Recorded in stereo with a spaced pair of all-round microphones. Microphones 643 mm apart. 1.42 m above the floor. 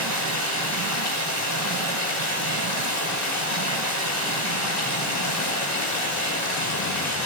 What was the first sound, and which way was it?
Running water, 25° left (ahead or behind).